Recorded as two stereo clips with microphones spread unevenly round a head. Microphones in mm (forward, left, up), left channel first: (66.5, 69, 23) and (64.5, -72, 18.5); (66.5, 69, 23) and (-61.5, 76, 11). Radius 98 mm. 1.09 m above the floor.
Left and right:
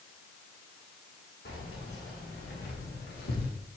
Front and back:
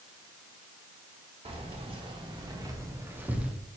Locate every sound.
1.4 s keys jangling: 135° left, 2 m; by 3.5 s 90° left, 1.4 m